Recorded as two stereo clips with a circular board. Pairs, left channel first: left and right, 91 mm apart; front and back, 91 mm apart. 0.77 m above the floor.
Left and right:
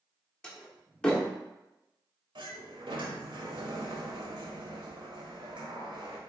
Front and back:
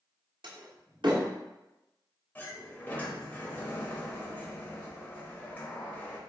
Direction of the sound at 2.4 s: 70° right.